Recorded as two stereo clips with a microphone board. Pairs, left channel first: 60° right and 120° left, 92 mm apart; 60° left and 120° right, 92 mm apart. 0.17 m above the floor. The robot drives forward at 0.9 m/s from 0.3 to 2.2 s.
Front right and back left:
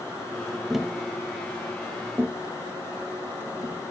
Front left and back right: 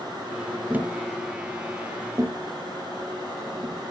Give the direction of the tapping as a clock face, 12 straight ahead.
5 o'clock.